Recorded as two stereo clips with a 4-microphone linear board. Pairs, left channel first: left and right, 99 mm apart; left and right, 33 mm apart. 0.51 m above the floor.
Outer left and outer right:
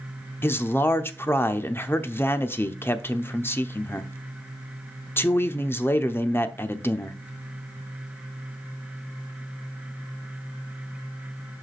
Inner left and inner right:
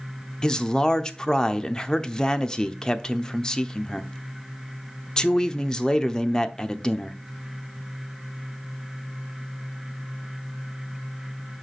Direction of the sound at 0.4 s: 25° left (ahead or behind).